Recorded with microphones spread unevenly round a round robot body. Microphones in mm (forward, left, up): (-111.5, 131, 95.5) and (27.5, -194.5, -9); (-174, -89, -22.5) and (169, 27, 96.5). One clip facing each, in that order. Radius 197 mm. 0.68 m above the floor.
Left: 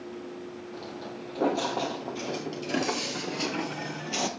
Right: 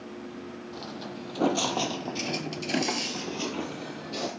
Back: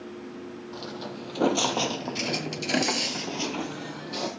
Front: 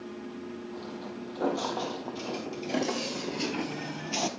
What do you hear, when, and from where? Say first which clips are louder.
0.7 s footsteps: even, back 1 dB; 125° right, 1.4 m; by 4.3 s 65° left, 1.0 m